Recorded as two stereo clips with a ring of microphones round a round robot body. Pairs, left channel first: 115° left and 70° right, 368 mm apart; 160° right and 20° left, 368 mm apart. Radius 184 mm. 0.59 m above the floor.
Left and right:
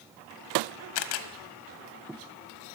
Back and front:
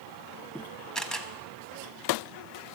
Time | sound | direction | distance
0.9 | a camera shutter | 115° left | 0.6 m